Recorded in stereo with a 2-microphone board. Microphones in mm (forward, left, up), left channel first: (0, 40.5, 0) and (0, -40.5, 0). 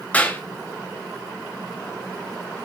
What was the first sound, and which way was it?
A clap, 20° left (ahead or behind).